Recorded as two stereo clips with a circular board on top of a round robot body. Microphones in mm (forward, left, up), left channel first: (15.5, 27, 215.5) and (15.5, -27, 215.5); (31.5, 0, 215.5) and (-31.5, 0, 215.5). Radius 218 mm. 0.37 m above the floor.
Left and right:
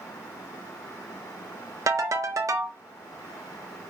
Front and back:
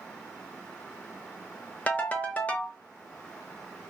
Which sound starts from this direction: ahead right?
A ringtone, at 1.9 s.